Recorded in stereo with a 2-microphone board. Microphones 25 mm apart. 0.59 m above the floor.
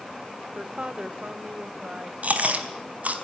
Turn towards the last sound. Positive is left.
turn(degrees=-60)  # may be behind; listen again after turning